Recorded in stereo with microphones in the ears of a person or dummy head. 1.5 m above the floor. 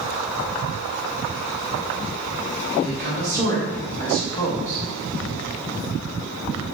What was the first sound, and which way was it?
A woman speaking, 20° left (ahead or behind).